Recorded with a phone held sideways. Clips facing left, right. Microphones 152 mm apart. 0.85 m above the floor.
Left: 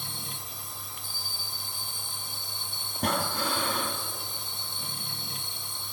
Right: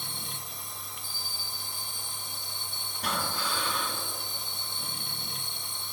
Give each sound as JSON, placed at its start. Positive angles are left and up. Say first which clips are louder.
{"t": 0.0, "sound": "a machine running", "louder": "left 1 dB", "side_deg": 0, "distance_m": 0.8}
{"t": 3.0, "sound": "breathing", "louder": "left 4 dB", "side_deg": 50, "distance_m": 1.7}